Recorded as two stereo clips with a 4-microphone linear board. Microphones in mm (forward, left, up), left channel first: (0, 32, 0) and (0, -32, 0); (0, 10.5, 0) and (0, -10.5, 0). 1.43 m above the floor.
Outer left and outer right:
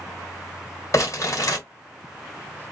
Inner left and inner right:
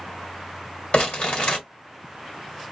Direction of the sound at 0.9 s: 55° left (ahead or behind).